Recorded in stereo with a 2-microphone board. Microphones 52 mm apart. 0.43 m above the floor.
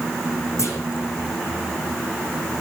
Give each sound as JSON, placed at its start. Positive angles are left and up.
{"t": 0.6, "sound": "a clunk", "side_deg": 60, "distance_m": 9.0}